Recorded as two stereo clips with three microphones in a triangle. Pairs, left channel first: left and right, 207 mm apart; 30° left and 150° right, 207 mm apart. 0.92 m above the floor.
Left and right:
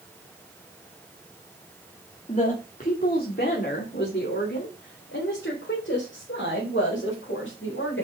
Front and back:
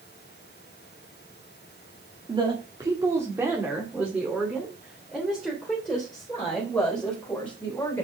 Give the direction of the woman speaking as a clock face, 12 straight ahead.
7 o'clock.